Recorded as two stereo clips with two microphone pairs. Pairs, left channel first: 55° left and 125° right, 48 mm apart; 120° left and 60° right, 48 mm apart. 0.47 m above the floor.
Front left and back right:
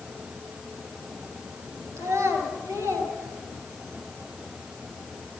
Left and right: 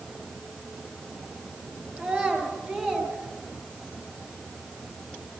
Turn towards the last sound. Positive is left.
turn(degrees=-120)